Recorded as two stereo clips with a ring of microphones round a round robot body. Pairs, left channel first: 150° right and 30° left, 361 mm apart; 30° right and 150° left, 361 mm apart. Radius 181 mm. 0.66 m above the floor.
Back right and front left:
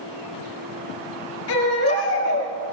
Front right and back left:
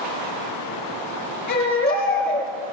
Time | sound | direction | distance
1.5 | a baby crying | 95° right | 8 m